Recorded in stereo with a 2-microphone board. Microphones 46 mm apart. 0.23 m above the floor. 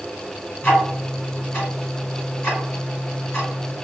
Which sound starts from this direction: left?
Ticking, at 0.6 s.